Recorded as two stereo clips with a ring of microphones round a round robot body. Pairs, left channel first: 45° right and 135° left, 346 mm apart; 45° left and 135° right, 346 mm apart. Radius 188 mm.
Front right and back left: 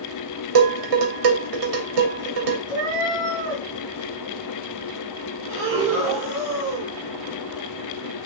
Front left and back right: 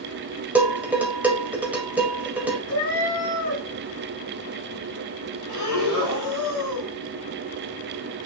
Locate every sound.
0.6 s dishes clattering: 140° left, 2.5 m
2.7 s a cat meowing: 75° left, 6 m
5.5 s breathing: 80° left, 4 m